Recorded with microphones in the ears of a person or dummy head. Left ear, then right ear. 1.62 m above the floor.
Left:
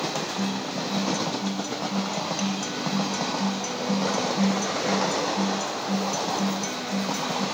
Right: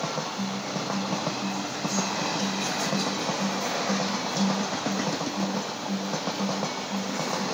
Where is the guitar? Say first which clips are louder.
Left 2 dB; 65° left (ahead or behind), 6 m.